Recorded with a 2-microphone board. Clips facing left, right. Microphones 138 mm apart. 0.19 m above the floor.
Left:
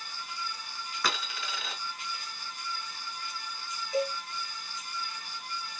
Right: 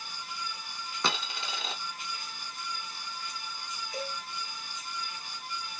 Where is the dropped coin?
25° right (ahead or behind), 0.7 m.